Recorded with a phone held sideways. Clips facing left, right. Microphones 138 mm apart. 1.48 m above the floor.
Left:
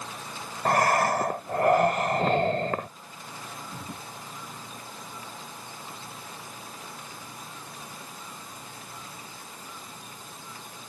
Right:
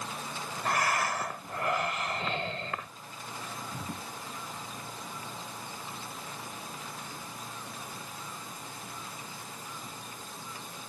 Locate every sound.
0.7 s breathing: 55° left (ahead or behind)